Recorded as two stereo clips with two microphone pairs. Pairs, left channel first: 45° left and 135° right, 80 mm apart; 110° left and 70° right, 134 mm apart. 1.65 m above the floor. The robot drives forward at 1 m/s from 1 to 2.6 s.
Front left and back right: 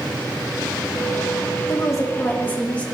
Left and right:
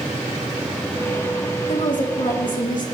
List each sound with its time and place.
1.7 s a woman speaking: 85° left, 1.7 m; by 2.9 s 115° left, 1.9 m